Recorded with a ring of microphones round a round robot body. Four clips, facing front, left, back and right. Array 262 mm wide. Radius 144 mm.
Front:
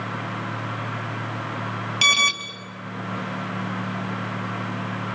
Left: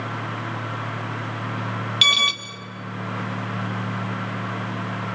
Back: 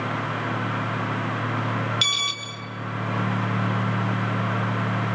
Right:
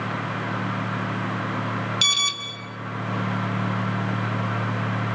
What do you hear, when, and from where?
2.0 s an alarm: 30° left, 2 m